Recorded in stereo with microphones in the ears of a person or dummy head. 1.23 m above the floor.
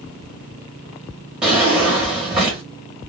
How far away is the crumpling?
No crumpling in this recording.